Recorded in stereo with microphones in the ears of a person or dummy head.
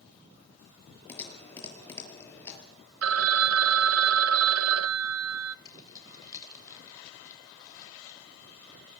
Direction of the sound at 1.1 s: 15° left (ahead or behind).